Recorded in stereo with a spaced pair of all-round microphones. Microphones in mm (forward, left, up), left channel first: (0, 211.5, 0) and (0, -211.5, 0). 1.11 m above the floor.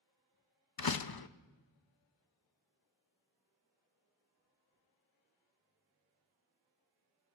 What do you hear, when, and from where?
0.8 s a door slam: 60° left (ahead or behind), 0.5 m